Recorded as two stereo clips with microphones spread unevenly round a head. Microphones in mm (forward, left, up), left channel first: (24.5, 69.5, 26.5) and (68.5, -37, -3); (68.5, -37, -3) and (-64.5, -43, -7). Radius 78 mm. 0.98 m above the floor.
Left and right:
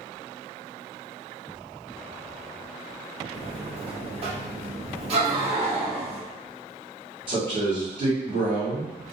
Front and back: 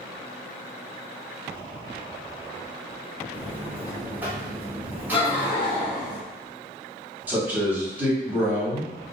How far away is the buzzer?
About 0.9 m.